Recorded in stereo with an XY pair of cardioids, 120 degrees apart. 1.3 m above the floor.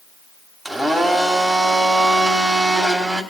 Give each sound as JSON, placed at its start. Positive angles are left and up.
{"t": 0.7, "sound": "a blender", "azimuth_deg": 0, "distance_m": 1.9}